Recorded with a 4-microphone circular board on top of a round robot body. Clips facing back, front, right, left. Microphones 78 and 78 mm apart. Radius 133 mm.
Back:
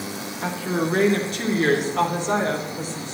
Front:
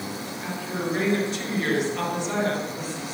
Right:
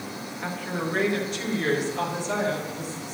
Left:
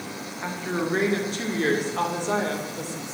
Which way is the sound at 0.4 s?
160° left.